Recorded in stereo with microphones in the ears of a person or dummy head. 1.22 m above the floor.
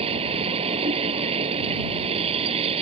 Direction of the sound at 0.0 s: 35° right (ahead or behind).